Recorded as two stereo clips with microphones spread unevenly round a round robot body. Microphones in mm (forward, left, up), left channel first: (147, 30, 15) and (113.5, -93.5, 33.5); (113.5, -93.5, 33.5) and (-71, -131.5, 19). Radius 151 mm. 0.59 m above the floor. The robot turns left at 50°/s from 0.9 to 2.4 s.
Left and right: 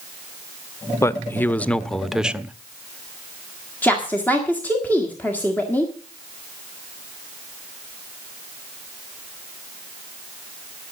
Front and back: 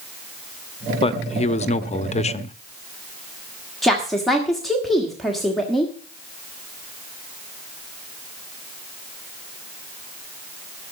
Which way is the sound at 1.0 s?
50° left.